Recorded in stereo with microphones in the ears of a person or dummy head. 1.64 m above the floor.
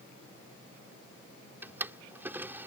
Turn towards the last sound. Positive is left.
turn(degrees=-20)  # may be behind; listen again after turning